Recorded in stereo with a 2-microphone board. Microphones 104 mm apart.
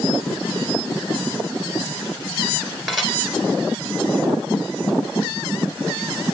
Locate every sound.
2.9 s dishes clattering: 5° right (ahead or behind), 2 m